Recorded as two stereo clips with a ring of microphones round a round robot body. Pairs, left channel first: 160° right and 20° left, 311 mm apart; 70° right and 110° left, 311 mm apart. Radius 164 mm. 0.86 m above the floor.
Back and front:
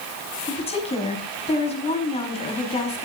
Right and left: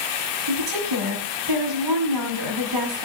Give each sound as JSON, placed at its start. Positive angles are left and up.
{"t": 0.5, "sound": "a woman speaking", "azimuth_deg": 130, "distance_m": 6.0}